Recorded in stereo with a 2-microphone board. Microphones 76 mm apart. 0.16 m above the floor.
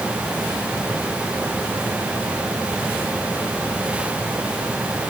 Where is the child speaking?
No child speaking in this recording.